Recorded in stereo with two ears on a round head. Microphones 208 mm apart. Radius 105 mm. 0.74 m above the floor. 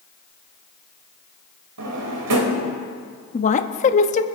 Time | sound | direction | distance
1.8 | a drawer | 85° right | 2.5 m
3.3 | a woman speaking | 30° left (ahead or behind) | 0.8 m